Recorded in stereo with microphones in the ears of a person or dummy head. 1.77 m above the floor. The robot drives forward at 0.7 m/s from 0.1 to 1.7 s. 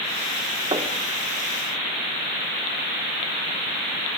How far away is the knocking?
About 2.5 m.